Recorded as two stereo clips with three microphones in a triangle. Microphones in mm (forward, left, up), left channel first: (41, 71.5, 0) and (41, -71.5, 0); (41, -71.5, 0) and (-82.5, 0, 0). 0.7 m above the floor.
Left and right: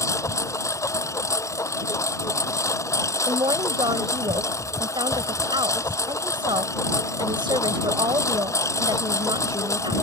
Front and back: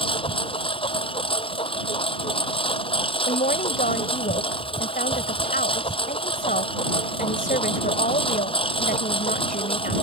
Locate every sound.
0.0 s a lawn mower: 20° left
3.3 s a woman speaking: 35° right